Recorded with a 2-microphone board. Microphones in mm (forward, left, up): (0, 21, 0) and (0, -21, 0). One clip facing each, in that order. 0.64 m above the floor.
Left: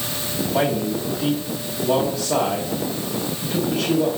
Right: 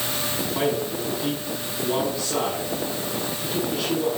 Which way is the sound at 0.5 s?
75° left (ahead or behind).